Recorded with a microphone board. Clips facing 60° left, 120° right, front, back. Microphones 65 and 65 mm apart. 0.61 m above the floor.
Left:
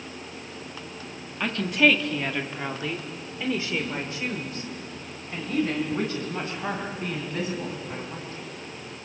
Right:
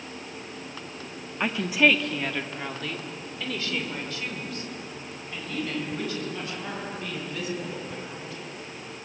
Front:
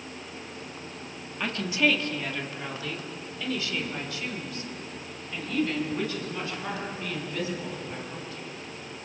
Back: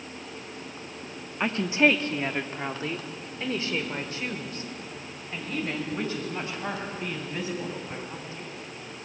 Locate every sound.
1.4 s a woman speaking: 170° right, 1.2 m; by 8.5 s 115° left, 6.5 m